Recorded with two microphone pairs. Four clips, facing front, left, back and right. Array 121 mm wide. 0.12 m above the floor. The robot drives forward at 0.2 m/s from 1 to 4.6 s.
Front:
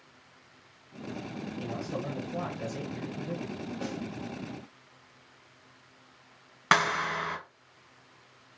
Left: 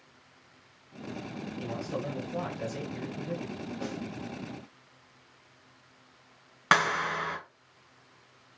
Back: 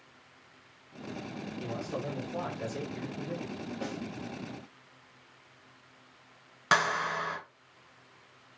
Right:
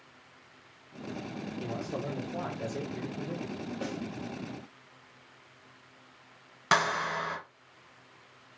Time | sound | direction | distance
1.6 | a man speaking | 60° left | 1.9 m
3.8 | a snare drum | 95° right | 1.6 m
6.7 | a clap | 55° left | 0.9 m